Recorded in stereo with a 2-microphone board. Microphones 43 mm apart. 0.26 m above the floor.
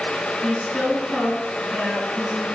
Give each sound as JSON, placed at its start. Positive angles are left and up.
{"t": 0.4, "sound": "a woman speaking", "side_deg": 10, "distance_m": 3.0}